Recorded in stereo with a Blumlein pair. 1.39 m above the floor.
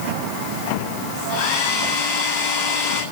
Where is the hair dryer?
45° left, 6.5 m.